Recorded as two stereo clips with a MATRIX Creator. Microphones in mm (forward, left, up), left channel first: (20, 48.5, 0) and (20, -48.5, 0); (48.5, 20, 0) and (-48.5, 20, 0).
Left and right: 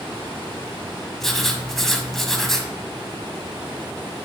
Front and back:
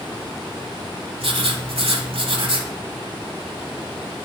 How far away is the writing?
About 1.2 m.